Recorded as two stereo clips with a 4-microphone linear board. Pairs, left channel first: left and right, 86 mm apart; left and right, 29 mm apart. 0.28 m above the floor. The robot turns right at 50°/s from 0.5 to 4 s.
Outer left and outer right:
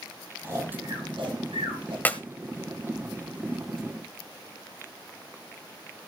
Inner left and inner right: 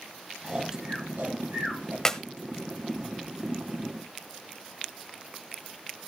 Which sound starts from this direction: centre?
A clap, at 2.0 s.